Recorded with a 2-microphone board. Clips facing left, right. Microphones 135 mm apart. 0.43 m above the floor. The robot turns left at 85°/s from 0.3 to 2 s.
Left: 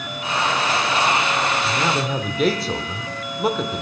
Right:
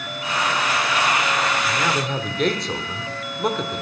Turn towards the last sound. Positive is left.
turn(degrees=5)